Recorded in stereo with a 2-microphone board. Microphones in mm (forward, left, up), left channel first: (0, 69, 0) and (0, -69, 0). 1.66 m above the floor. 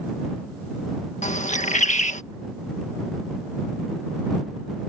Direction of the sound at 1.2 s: 60° left (ahead or behind).